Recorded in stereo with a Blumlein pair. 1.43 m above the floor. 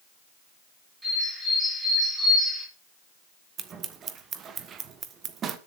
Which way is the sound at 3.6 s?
25° right.